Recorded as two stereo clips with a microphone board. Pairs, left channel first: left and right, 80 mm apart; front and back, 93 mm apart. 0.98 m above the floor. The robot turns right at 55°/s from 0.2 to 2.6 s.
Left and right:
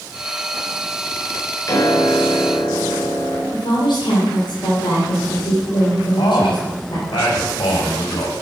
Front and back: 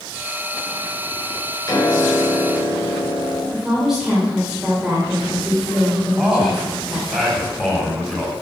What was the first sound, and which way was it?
A piano, 45° left.